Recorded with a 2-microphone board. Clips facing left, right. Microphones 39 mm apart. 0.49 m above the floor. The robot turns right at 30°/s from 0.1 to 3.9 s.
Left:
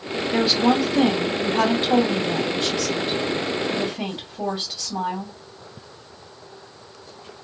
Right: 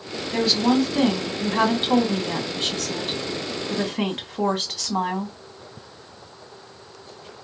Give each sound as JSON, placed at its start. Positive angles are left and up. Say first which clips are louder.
{"t": 0.3, "sound": "a woman speaking", "louder": "left 1 dB", "azimuth_deg": 165, "distance_m": 1.6}